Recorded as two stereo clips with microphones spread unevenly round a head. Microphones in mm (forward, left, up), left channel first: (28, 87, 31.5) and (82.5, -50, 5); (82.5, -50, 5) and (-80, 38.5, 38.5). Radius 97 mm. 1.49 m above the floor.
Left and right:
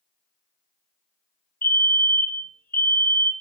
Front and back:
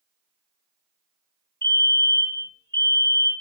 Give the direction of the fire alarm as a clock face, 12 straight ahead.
11 o'clock.